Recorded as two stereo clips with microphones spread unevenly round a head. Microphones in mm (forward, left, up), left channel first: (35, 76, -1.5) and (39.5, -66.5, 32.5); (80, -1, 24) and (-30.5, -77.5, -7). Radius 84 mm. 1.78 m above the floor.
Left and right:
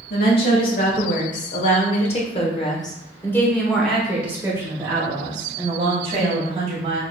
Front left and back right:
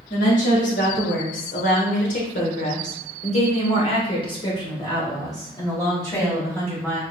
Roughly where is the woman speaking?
Left.